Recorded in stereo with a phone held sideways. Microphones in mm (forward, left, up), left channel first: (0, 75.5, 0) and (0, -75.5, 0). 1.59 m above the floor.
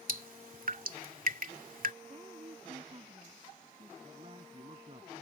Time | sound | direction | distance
0.1 | dripping | 65° right (ahead or behind) | ?
2.0 | a woman speaking | 35° right (ahead or behind) | ?
4.0 | a man speaking | 40° right (ahead or behind) | ?